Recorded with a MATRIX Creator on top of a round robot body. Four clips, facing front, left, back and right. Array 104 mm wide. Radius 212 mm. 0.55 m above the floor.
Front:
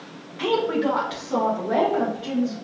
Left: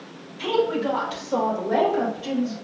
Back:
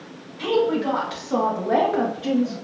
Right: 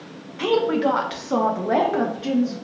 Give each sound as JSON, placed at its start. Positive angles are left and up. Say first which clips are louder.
{"t": 0.4, "sound": "a woman speaking", "louder": "right 3 dB, back 1 dB", "azimuth_deg": -65, "distance_m": 0.9}